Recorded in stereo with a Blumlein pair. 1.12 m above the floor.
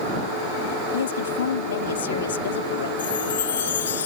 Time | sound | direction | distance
0.9 | a woman speaking | 65° left | ?
3.0 | a chime | 60° left | ?